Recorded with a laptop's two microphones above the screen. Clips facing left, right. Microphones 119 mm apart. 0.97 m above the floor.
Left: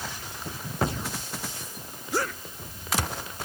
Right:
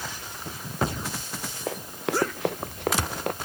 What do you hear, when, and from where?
1.7 s running footsteps: 80° right; by 3.3 s 65° right (ahead or behind)